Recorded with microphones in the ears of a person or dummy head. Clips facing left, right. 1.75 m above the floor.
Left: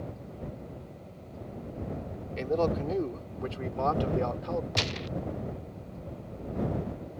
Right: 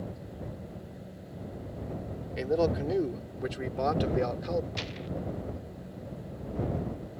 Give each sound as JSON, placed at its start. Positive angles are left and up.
{"t": 2.4, "sound": "a man speaking", "side_deg": -5}
{"t": 4.8, "sound": "a gunshot", "side_deg": 65}